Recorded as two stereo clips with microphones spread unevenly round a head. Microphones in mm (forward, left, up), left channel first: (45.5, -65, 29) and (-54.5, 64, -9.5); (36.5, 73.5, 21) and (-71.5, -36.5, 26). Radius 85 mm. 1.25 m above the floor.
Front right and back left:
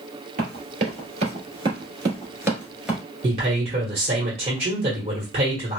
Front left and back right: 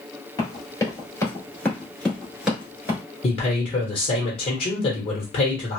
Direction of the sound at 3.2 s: 90° left.